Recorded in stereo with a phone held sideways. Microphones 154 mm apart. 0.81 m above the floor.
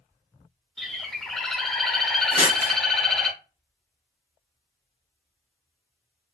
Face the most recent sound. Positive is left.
turn(degrees=-40)  # may be behind; listen again after turning